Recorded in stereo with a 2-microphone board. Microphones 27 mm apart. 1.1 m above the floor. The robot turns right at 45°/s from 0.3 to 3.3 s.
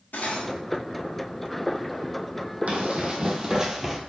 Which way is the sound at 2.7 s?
55° right (ahead or behind).